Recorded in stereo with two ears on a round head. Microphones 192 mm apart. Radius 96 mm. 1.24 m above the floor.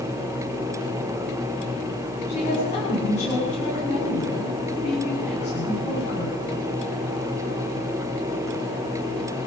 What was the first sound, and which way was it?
A woman speaking, 35° left (ahead or behind).